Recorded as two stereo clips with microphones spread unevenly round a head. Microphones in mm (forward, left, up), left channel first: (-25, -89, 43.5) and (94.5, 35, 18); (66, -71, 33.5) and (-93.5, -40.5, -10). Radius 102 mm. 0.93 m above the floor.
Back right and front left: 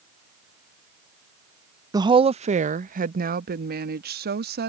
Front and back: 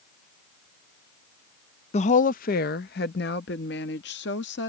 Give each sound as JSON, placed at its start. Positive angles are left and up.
{"t": 1.9, "sound": "a woman speaking", "azimuth_deg": 30}